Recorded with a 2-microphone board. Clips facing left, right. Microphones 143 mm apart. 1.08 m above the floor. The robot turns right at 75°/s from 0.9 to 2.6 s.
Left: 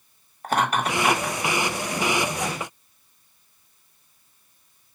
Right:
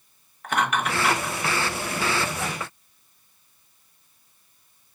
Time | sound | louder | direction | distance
0.4 | laughter | left 2 dB | 35° left (ahead or behind) | 0.9 m